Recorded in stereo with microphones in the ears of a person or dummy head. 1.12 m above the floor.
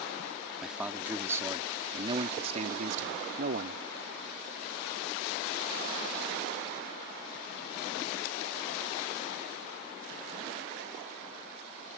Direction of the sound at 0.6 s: 5° right (ahead or behind).